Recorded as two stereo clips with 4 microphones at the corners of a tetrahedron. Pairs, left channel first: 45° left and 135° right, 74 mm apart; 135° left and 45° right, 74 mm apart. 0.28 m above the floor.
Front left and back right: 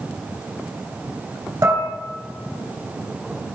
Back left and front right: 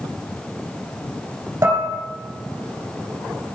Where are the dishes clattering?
100° right, 2.5 m.